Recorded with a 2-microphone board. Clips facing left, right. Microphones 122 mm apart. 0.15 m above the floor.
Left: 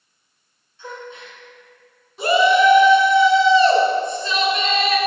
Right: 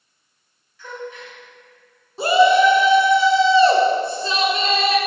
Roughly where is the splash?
I don't hear a splash.